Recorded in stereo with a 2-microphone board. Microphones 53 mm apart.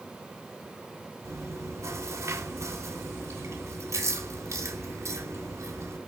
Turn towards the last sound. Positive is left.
turn(degrees=-60)  # may be behind; listen again after turning